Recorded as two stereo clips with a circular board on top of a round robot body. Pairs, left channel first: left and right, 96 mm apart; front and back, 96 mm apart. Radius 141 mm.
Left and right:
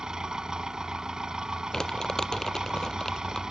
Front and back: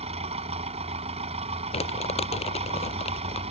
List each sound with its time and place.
0.0 s an engine running: 175° right
1.7 s crumpling: 5° left